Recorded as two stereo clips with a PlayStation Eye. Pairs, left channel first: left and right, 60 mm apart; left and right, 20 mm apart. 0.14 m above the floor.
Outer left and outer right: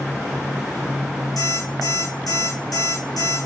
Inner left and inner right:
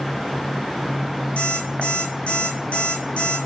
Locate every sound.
1.4 s an alarm clock: 80° left, 5 m